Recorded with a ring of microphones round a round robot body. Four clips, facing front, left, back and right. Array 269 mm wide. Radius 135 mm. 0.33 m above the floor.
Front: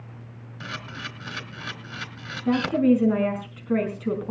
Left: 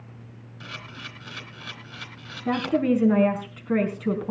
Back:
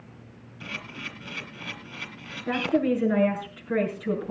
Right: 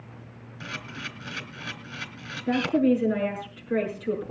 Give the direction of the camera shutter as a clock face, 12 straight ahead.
12 o'clock.